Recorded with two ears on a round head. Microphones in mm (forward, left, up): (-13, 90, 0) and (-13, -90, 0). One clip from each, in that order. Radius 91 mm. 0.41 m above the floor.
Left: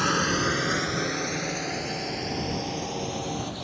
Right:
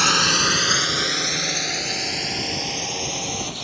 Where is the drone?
75° right (ahead or behind); by 3.6 s 50° right (ahead or behind).